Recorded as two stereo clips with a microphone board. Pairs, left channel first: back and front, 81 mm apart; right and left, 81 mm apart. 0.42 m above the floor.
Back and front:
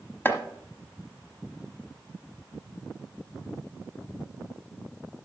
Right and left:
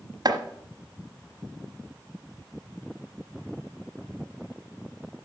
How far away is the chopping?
About 1.1 m.